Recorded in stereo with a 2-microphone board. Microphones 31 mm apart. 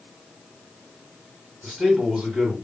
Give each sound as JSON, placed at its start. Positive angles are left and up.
{"t": 1.6, "sound": "a man speaking", "side_deg": -30, "distance_m": 2.0}